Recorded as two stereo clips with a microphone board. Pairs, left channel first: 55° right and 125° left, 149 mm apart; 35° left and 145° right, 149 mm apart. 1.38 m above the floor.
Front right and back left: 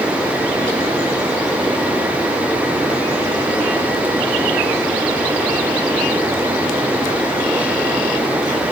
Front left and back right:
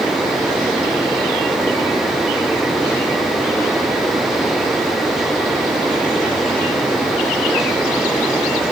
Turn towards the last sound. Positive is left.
No sound to turn to.